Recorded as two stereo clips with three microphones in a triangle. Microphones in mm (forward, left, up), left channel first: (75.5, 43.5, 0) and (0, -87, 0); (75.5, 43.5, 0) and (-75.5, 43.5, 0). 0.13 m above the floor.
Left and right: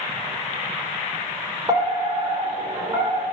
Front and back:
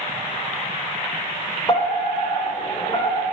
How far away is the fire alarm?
About 8.5 m.